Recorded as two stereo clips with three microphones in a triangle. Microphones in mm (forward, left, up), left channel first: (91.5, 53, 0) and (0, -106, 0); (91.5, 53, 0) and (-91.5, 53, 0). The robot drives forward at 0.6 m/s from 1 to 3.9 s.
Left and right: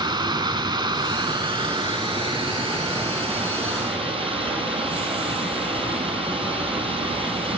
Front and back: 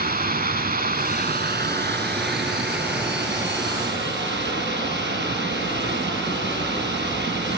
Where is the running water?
Straight behind, 0.9 m.